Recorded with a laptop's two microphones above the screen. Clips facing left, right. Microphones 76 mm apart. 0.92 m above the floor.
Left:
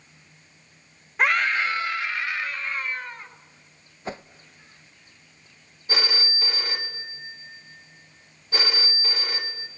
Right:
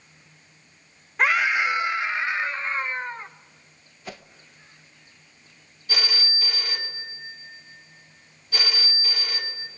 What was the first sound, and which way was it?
A scream, centre (ahead or behind).